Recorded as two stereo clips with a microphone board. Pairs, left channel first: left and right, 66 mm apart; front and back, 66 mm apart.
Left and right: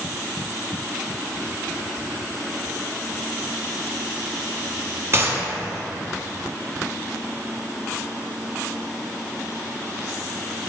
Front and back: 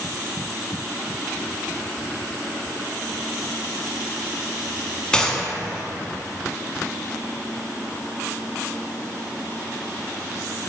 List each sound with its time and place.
5.1 s a gunshot: 70° right, 0.9 m